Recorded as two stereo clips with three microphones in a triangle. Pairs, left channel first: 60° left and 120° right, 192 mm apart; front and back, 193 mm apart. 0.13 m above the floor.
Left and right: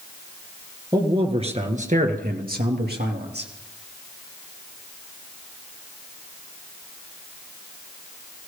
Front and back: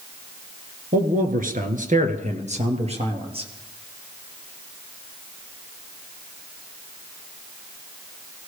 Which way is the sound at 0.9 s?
Straight behind.